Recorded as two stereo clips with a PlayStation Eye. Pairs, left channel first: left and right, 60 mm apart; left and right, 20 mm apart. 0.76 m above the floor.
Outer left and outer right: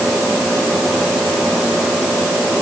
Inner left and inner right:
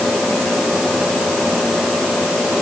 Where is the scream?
No scream in this recording.